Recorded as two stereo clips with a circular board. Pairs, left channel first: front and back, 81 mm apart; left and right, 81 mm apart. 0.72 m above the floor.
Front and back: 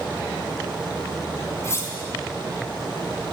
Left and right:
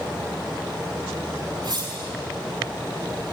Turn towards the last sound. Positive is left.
turn(degrees=-55)